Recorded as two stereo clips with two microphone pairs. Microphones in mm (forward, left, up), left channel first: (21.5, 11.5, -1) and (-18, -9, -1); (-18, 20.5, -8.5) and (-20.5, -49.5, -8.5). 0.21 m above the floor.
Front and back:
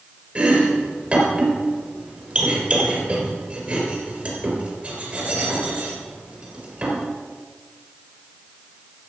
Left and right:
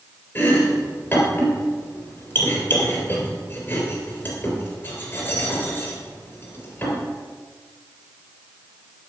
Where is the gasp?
I don't hear a gasp.